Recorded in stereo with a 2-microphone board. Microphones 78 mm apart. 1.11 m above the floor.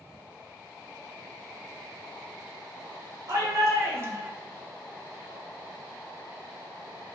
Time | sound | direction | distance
3.3 | a shout | 40° right (ahead or behind) | 1.4 m